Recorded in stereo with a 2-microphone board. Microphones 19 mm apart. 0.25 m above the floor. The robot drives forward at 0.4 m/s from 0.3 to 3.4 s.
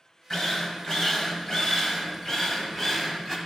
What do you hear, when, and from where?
0.3 s a drill: 25° left (ahead or behind), 1.1 m; by 3.4 s 20° left (ahead or behind), 1.3 m